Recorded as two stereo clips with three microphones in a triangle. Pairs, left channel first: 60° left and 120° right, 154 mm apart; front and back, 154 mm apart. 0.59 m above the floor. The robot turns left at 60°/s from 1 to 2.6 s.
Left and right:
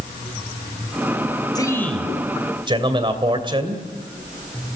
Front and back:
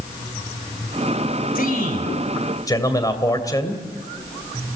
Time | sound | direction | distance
1.6 | a man speaking | straight ahead | 2.5 m